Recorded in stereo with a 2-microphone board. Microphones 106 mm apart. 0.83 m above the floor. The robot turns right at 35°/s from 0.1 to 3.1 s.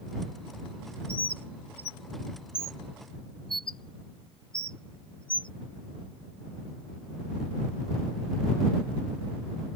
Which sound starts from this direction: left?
A bird, at 1.1 s.